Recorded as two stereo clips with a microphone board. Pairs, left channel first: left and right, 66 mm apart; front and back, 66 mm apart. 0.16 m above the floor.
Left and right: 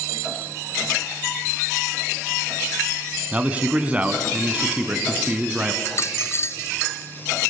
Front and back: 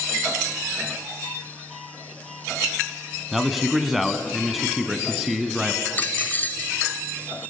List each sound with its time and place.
3.3 s a man speaking: 100° right, 1.6 m
5.8 s a dropped coin: 55° left, 0.8 m